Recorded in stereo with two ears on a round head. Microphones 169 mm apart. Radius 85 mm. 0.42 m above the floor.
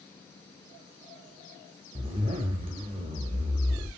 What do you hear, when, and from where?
1.9 s a zipper: 30° right (ahead or behind), 0.6 m